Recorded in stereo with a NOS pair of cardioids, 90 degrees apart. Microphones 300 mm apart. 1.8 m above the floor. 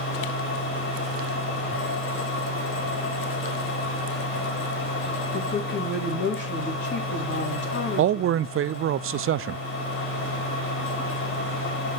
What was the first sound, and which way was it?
A machine running, 45° left.